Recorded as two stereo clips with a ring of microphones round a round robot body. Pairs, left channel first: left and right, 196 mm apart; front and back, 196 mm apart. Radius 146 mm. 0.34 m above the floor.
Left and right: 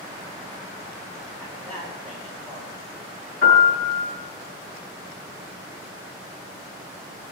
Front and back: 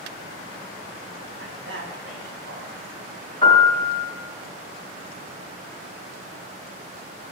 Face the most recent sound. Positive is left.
turn(degrees=65)